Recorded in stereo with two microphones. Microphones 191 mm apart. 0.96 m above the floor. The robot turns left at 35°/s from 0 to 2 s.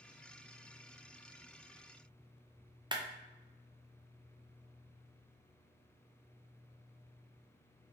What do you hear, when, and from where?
2.9 s a clap: 25° right (ahead or behind), 0.5 m